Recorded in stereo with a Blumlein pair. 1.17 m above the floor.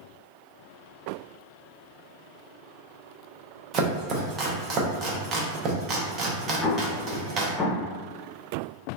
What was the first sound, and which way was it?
Chopping, 30° right.